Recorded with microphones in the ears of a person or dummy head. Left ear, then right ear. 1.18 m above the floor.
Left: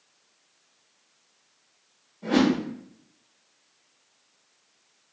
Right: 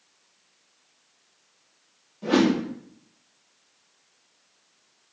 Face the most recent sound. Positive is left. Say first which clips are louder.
# right 1 dB
turn(degrees=-45)  # may be behind; listen again after turning